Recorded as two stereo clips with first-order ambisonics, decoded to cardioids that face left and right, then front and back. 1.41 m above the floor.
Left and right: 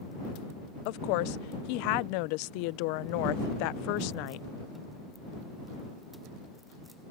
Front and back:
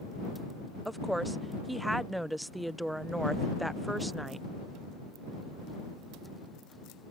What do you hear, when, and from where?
0.8 s a woman speaking: 95° left